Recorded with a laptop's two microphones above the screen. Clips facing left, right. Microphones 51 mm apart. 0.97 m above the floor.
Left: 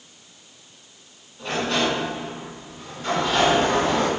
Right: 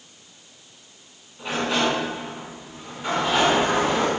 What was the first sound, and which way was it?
A sliding door, 15° right (ahead or behind).